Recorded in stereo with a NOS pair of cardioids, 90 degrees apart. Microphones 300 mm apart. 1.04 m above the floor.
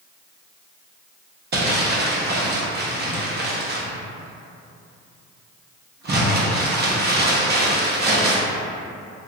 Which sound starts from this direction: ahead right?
Crumpling, at 1.5 s.